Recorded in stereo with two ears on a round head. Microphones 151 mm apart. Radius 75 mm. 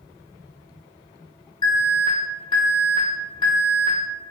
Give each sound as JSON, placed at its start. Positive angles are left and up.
{"t": 1.6, "sound": "an alarm", "side_deg": 25, "distance_m": 0.8}